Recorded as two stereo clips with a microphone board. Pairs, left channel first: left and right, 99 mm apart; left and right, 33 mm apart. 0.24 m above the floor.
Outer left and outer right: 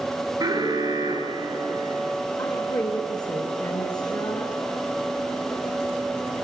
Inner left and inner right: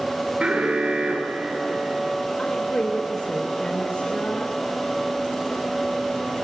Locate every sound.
0.4 s an alarm: 40° right (ahead or behind), 6 m
2.4 s a woman speaking: 40° left (ahead or behind), 4 m